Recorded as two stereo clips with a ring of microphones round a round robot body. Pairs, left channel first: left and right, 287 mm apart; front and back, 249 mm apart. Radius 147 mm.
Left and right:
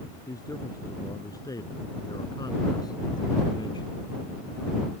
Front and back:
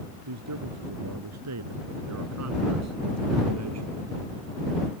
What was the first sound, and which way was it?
A man speaking, 170° left.